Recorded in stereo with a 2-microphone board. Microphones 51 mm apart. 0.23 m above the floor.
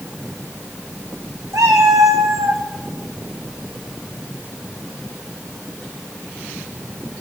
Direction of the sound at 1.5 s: 70° right (ahead or behind).